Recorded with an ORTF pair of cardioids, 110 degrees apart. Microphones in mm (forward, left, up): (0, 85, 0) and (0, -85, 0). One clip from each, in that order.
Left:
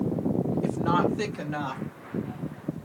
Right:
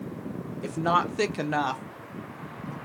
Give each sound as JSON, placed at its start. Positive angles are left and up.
{"t": 0.6, "sound": "a woman speaking", "azimuth_deg": -20, "distance_m": 1.1}